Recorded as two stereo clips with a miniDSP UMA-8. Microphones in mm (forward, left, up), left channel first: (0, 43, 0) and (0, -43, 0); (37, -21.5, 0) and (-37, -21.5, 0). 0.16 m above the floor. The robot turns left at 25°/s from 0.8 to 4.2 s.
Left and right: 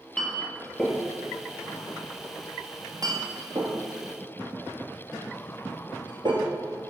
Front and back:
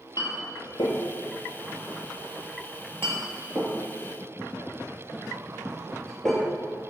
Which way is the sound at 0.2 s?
5° left.